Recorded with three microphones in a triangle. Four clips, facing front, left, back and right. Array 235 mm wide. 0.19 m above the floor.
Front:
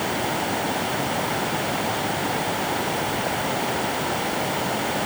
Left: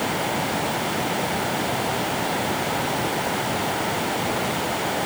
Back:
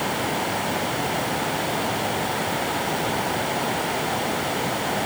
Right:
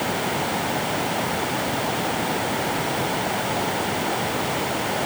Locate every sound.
Only background noise.